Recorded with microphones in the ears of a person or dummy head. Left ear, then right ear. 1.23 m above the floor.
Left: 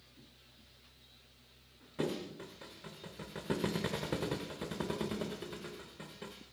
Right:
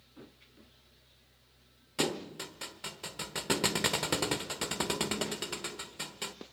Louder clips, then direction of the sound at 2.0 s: Right 5 dB; 35° right (ahead or behind).